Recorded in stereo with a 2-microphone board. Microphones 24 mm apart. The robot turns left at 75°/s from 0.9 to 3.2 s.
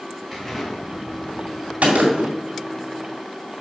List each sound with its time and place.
0.3 s an explosion: straight behind, 2.5 m; by 1.7 s 115° left, 2.5 m
1.8 s a gunshot: 95° right, 2.5 m; by 2.4 s 135° right, 2.5 m